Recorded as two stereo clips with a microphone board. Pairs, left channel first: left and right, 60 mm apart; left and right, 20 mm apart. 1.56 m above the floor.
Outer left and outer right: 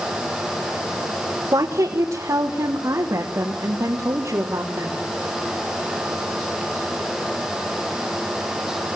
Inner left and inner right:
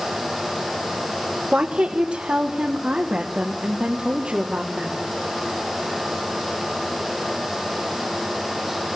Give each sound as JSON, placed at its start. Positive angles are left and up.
{"t": 1.5, "sound": "a woman speaking", "side_deg": -70, "distance_m": 1.7}